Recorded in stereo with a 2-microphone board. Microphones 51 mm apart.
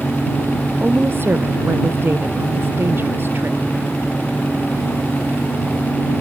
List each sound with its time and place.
0.8 s a woman speaking: 50° right (ahead or behind)